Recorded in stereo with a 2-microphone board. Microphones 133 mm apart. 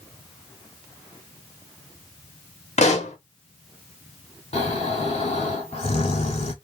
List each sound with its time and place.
2.8 s a pop: 55° left (ahead or behind), 1.1 m
4.5 s snoring: 50° left (ahead or behind), 1.6 m